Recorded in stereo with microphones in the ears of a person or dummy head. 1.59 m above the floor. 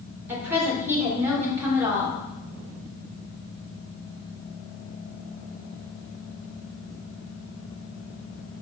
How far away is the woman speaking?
About 1.4 m.